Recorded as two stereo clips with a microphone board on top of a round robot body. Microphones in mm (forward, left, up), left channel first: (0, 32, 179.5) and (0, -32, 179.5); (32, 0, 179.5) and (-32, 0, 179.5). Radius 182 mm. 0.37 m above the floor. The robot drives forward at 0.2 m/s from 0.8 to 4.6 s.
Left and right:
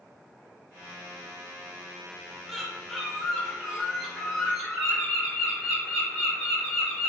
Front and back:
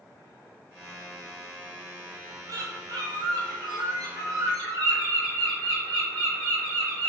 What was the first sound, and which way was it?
A bird, straight behind.